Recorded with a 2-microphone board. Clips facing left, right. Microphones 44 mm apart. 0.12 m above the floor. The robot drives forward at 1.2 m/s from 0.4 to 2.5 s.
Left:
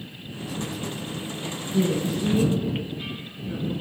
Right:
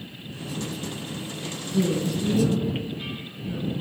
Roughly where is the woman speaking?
Left.